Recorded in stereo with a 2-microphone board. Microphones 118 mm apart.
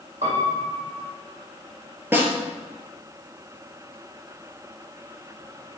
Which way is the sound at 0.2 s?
70° right (ahead or behind).